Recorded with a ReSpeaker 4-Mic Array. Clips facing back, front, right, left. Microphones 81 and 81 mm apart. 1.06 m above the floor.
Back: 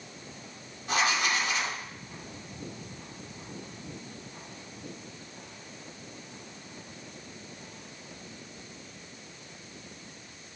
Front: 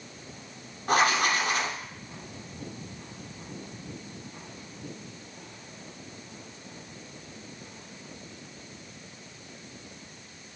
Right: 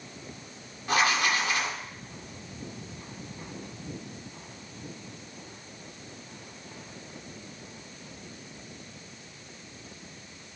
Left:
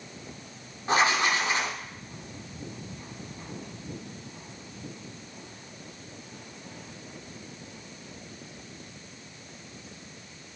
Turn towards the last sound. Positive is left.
turn(degrees=35)